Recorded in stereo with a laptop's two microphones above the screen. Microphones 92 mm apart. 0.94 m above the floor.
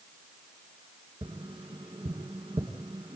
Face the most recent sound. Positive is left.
turn(degrees=-80)